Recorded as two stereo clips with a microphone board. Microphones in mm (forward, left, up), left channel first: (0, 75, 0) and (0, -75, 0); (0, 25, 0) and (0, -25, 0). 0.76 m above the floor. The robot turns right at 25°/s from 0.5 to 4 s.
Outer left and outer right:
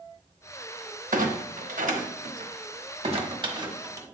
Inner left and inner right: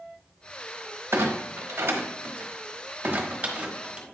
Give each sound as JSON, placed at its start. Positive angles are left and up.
{"t": 1.1, "sound": "a clunk", "side_deg": -65, "distance_m": 1.1}